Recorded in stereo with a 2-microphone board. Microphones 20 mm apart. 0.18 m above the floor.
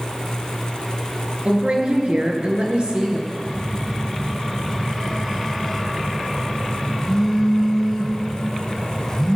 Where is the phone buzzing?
10° left (ahead or behind), 3 m.